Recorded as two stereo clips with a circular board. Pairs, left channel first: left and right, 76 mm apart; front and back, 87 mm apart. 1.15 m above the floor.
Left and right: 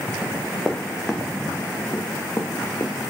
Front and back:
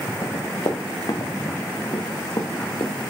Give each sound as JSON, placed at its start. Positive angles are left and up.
{"t": 0.2, "sound": "running footsteps", "azimuth_deg": -10, "distance_m": 3.5}